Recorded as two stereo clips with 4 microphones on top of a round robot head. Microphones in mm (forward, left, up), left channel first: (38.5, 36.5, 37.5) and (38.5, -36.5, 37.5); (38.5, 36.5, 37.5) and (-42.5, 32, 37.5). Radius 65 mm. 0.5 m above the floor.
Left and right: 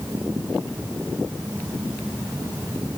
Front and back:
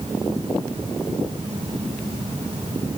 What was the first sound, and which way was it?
Only background noise.